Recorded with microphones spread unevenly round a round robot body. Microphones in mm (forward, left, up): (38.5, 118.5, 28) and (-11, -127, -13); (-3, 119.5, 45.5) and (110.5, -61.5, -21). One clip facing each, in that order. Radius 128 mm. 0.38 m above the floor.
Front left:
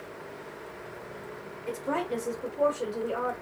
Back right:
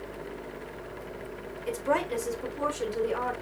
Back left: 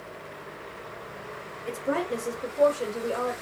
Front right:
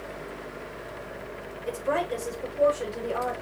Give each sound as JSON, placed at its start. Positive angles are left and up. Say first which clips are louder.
{"t": 1.7, "sound": "a woman speaking", "louder": "back right 2 dB, even", "azimuth_deg": -110, "distance_m": 1.3}